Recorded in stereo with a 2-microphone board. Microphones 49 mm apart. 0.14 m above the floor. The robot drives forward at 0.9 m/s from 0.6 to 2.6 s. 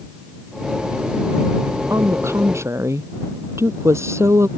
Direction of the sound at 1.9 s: 70° right (ahead or behind).